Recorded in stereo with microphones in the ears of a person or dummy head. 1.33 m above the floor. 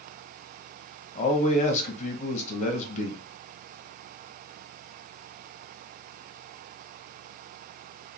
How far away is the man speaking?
About 1.0 m.